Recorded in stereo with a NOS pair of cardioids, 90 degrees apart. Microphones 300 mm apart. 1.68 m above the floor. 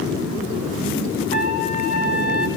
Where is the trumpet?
25° left, 2.5 m.